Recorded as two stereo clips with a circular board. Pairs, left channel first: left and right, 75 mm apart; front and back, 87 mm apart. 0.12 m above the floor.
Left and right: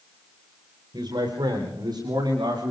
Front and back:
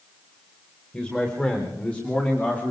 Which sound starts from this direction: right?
A man speaking, at 0.9 s.